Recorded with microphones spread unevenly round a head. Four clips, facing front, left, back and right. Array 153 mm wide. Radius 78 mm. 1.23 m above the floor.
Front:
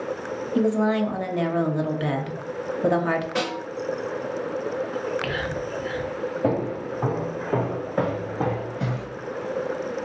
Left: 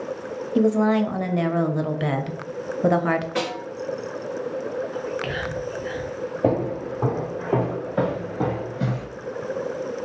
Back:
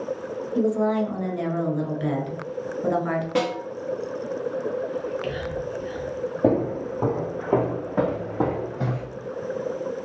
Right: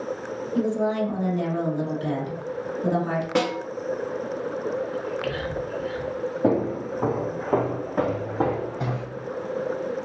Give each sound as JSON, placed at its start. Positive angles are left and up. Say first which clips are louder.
{"t": 0.6, "sound": "a woman speaking", "louder": "left 5 dB, front 1 dB", "azimuth_deg": 55, "distance_m": 0.5}
{"t": 3.4, "sound": "a snare drum", "louder": "right 3 dB, back 3 dB", "azimuth_deg": -115, "distance_m": 0.9}
{"t": 4.9, "sound": "whispering", "louder": "even, front 1 dB", "azimuth_deg": 35, "distance_m": 0.7}
{"t": 6.4, "sound": "footsteps", "louder": "left 1 dB, back 4 dB", "azimuth_deg": 150, "distance_m": 1.5}